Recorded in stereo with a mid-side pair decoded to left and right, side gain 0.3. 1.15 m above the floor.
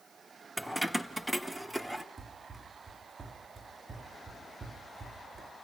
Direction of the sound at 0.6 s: Straight ahead.